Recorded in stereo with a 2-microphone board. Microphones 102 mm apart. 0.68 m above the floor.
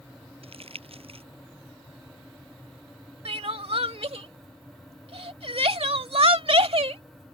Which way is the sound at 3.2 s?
70° right (ahead or behind).